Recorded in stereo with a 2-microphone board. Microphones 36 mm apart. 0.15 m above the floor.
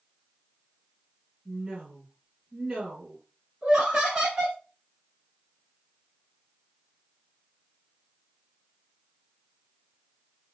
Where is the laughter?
20° right (ahead or behind), 1.5 m.